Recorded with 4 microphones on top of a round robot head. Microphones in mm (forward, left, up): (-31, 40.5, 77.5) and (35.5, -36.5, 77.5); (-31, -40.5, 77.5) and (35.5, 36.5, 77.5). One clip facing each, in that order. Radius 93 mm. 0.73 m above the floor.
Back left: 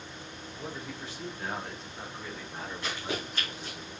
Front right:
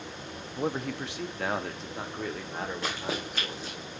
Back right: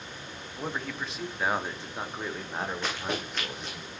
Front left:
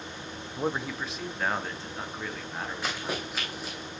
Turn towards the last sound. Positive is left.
turn(degrees=-40)